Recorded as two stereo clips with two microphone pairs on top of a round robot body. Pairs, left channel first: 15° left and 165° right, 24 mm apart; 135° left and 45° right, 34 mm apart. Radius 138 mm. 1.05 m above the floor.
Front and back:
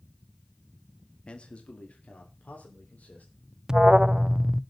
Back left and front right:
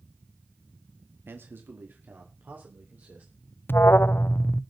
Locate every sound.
1.3 s a man speaking: 30° right, 1.7 m; by 3.3 s straight ahead, 4.5 m
3.7 s an alarm: 135° left, 0.6 m